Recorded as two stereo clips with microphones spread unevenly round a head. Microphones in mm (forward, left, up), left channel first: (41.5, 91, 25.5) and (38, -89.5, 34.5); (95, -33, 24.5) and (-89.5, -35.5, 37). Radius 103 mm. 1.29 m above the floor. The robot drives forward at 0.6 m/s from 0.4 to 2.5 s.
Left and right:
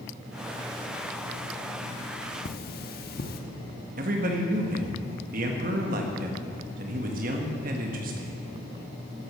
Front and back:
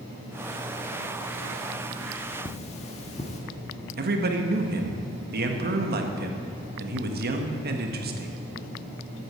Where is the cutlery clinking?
60° left, 1.1 m.